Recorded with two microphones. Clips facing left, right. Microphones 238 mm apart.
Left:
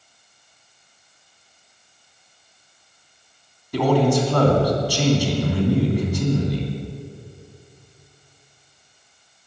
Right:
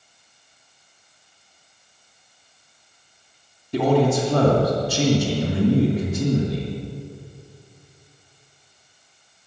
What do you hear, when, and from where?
3.7 s a man speaking: 25° right (ahead or behind), 3 m